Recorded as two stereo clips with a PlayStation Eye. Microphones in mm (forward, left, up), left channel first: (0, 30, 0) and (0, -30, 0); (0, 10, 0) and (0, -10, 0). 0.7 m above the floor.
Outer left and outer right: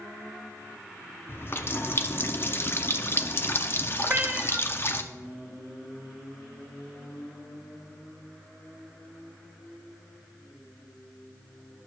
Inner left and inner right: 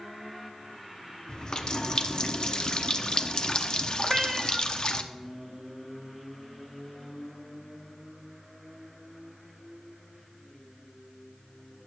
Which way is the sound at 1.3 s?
40° left (ahead or behind).